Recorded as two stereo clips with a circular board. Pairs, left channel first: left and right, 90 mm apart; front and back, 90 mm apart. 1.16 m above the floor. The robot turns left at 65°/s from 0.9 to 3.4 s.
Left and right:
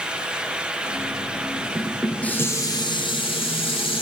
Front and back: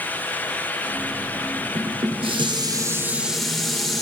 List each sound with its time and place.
1.8 s dishes clattering: 165° right, 2.5 m; by 4.0 s 90° left, 2.5 m